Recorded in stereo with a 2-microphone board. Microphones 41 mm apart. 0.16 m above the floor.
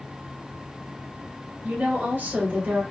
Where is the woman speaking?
55° right (ahead or behind), 3 m; by 2.8 s 45° right (ahead or behind), 2.5 m.